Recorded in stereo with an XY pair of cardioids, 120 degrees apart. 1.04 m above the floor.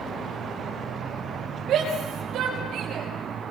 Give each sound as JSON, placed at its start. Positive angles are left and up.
{"t": 1.7, "sound": "a shout", "azimuth_deg": -60, "distance_m": 5.0}